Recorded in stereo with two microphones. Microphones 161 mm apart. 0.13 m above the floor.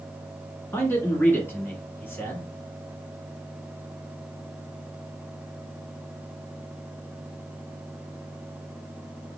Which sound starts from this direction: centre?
A man speaking, at 0.7 s.